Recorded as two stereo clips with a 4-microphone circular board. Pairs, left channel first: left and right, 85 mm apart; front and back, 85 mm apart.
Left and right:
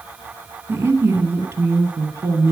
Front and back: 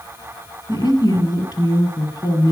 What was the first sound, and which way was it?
A woman speaking, 30° right.